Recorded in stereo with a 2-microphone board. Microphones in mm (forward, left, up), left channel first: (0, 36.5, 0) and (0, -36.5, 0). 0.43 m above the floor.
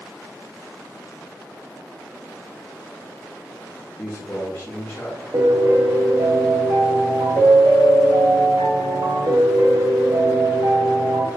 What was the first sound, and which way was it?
A man speaking, 35° left (ahead or behind).